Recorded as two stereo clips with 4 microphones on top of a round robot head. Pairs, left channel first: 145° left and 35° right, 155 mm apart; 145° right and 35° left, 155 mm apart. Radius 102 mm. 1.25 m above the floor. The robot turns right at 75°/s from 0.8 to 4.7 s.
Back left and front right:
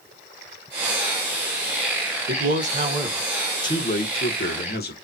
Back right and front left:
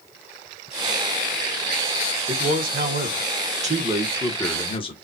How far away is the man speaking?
About 1.2 m.